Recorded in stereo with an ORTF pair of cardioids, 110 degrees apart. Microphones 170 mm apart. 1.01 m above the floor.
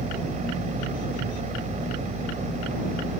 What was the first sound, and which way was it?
A machine running, 45° right.